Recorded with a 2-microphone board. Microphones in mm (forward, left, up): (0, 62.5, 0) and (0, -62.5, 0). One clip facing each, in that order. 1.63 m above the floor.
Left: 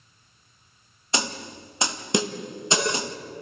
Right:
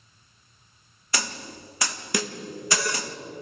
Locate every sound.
1.1 s a snare drum: 25° left (ahead or behind), 0.9 m